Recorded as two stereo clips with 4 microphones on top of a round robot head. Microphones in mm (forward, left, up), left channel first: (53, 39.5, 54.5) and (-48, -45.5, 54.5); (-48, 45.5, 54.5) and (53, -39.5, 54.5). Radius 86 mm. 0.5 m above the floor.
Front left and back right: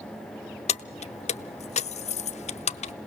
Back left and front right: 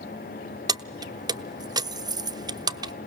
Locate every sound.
0.7 s keys jangling: 15° left, 0.7 m